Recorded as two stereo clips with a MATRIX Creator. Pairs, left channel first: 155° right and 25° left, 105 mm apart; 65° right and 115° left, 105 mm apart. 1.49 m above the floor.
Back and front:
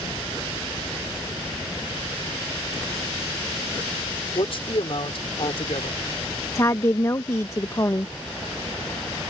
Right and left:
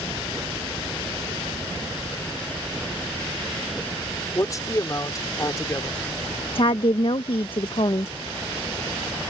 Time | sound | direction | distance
4.3 | a man speaking | 125° right | ?
6.5 | a woman speaking | 95° right | ?